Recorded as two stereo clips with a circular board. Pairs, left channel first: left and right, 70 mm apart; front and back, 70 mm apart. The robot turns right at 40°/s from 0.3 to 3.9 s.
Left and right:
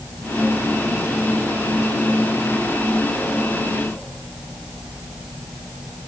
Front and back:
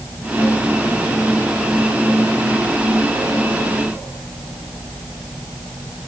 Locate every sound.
Only background noise.